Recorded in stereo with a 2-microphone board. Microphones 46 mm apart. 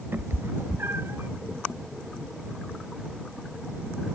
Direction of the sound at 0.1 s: 60° right (ahead or behind).